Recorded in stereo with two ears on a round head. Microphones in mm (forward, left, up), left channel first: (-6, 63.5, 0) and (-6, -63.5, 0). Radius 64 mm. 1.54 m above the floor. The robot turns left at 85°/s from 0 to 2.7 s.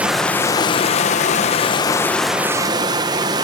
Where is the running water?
165° right, 0.7 m; by 3.5 s 35° right, 0.7 m.